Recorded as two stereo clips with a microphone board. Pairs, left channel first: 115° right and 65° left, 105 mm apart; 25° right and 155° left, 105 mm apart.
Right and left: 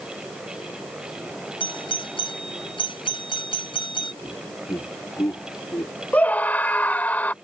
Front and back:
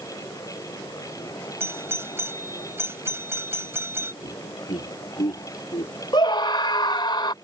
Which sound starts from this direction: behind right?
A doorbell, at 1.6 s.